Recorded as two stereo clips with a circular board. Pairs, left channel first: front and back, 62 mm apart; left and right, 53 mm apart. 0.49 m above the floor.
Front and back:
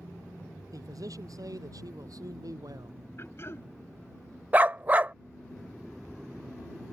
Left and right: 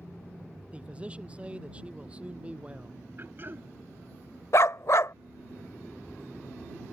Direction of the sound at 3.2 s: 45° right.